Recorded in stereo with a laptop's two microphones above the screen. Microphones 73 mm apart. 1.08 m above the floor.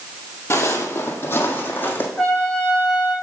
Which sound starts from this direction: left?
Footsteps, at 0.5 s.